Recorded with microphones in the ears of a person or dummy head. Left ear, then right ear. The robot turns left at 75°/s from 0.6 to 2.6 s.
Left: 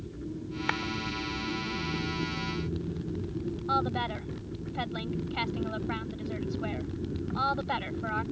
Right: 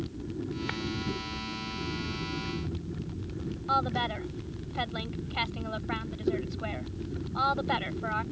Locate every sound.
0.7 s a clap: 35° left (ahead or behind); by 0.8 s 45° left (ahead or behind)
3.7 s a woman speaking: 5° right (ahead or behind)